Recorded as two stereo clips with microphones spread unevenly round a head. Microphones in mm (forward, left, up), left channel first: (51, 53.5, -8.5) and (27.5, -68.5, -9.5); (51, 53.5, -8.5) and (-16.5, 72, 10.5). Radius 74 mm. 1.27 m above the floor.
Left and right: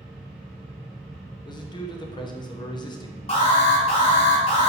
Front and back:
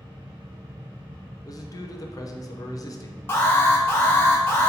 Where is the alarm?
50° left, 0.9 m.